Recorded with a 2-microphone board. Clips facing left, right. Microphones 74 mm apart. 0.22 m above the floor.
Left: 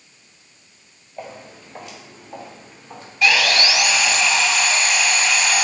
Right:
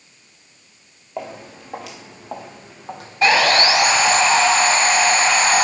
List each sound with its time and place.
1.2 s footsteps: 85° right, 5 m; by 4.2 s 70° right (ahead or behind), 5.5 m
3.2 s sawing: 35° right (ahead or behind), 0.5 m